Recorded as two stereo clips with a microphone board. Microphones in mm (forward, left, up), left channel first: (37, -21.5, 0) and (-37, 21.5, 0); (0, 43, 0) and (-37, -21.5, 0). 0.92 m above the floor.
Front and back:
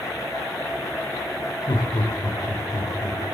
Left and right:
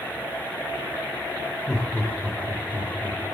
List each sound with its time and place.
1.7 s laughter: 15° right, 3.5 m; by 3.2 s 10° right, 4.5 m